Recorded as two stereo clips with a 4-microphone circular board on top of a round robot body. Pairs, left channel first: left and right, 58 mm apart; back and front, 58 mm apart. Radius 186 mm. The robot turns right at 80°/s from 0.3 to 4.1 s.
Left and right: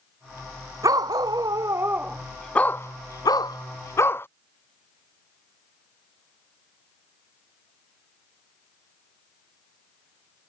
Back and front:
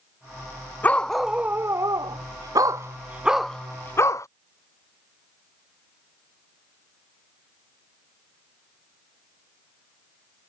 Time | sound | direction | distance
0.8 | a dog barking | 120° right | ?